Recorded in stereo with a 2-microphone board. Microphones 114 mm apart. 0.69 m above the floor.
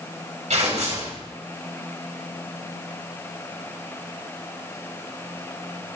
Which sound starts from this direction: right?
Tearing paper, at 0.5 s.